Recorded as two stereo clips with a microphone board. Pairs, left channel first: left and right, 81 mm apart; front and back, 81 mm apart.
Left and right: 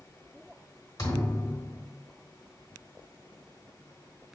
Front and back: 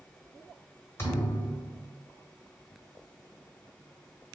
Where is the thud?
55° left, 1.1 m.